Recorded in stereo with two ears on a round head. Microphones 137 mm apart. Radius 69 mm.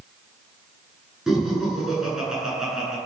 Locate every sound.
1.3 s laughter: 5° right (ahead or behind), 9.5 m